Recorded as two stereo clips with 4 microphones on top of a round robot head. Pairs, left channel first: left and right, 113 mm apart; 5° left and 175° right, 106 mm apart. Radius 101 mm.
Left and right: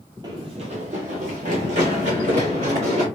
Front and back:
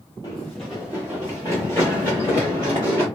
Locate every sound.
0.2 s running footsteps: 55° right, 0.7 m; by 3.1 s 110° right, 3 m